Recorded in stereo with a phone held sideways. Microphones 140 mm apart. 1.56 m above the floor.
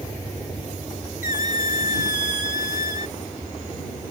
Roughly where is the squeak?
Left.